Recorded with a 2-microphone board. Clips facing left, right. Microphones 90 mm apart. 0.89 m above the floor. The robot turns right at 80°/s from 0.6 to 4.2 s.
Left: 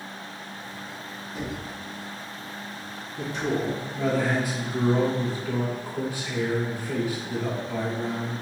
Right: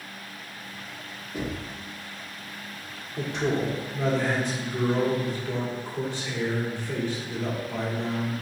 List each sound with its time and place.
1.3 s knocking: 40° right (ahead or behind), 2 m; by 1.6 s 20° right (ahead or behind), 2 m
3.2 s a man speaking: 75° right, 1.5 m; by 8.3 s 10° left, 1.5 m